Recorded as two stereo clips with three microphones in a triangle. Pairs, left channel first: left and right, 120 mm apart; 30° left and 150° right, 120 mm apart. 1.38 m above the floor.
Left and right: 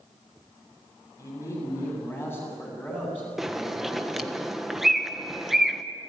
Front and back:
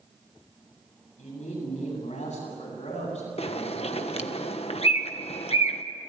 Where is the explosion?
No explosion in this recording.